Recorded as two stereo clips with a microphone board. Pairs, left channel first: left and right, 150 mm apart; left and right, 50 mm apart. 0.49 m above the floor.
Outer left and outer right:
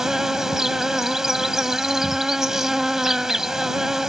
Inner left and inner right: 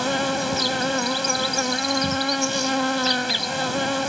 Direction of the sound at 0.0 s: 5° right (ahead or behind).